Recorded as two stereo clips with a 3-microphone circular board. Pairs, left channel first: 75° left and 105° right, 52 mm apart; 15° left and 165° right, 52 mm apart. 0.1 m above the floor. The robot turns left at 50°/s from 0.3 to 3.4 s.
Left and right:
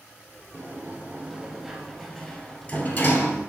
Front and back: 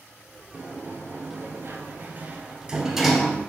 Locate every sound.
0.5 s a sliding door: 120° right, 0.8 m; by 3.4 s 100° left, 0.8 m